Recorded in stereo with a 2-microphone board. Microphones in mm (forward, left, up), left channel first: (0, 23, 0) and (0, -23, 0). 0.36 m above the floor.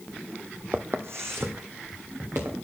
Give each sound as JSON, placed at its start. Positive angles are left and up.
{"t": 0.7, "sound": "footsteps", "side_deg": -60, "distance_m": 0.6}